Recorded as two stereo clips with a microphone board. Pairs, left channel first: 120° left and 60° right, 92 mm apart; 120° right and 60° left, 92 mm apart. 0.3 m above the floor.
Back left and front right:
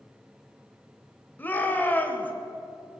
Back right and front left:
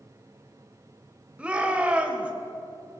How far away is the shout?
About 1.2 m.